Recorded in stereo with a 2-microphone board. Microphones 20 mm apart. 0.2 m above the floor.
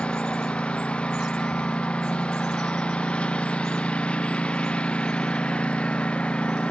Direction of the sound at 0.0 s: 60° left (ahead or behind).